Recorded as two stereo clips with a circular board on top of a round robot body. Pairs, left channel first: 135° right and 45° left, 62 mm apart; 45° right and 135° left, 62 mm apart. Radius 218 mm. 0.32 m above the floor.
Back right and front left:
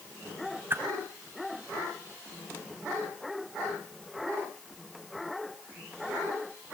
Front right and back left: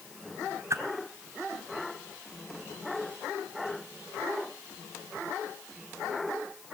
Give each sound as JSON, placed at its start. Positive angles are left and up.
{"t": 0.7, "sound": "a whoosh", "azimuth_deg": 95, "distance_m": 3.5}